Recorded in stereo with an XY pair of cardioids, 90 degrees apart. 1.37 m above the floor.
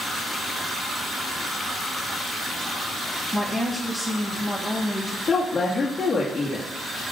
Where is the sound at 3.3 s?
Straight ahead, 6.5 m.